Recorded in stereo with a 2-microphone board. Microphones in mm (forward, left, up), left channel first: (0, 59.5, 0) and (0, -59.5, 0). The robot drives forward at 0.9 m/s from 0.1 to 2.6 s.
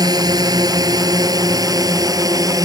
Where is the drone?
35° right (ahead or behind); by 2.6 s 30° right (ahead or behind).